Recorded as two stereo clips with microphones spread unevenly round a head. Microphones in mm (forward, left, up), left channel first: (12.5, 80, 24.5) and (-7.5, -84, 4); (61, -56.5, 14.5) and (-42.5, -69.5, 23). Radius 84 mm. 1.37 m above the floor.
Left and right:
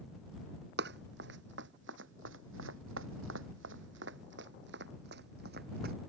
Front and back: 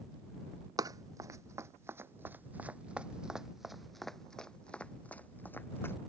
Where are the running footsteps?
125° right; by 6.0 s 60° right.